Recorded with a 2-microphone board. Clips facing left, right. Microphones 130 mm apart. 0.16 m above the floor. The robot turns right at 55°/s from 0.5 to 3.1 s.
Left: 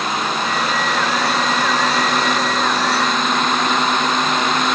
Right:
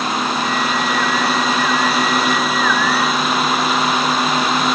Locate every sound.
Only background noise.